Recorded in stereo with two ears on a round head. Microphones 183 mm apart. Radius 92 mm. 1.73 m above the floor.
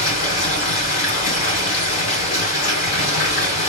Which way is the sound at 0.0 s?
40° left (ahead or behind).